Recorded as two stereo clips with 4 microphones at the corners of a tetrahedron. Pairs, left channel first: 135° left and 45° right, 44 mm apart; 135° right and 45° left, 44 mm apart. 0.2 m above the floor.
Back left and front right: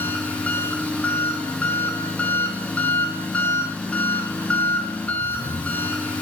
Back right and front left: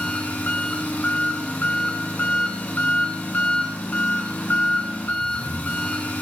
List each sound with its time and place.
0.0 s an engine running: 170° right, 1.5 m